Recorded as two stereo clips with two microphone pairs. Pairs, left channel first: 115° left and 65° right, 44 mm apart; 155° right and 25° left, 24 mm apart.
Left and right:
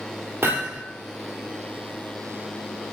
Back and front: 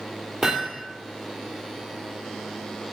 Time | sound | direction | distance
0.4 | hammering | 40° right | 3.5 m